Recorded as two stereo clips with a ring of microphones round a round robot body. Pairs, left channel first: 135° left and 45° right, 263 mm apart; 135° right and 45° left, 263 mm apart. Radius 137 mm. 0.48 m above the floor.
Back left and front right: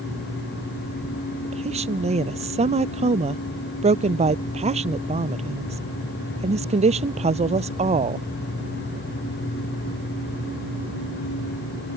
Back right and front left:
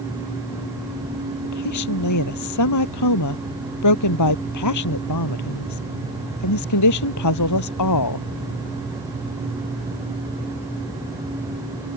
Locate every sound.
1.4 s a woman speaking: 115° right